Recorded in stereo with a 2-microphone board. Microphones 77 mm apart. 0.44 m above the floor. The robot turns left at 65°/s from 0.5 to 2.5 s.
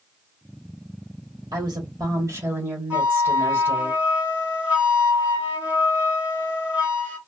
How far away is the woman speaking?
About 1.3 m.